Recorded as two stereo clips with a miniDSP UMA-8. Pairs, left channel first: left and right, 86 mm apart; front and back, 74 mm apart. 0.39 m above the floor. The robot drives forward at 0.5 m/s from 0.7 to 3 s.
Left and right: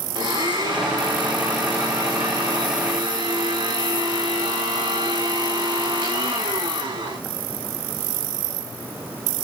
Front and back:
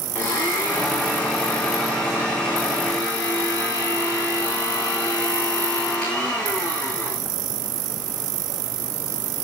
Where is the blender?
70° right, 8.5 m; by 7.2 s 75° right, 8 m.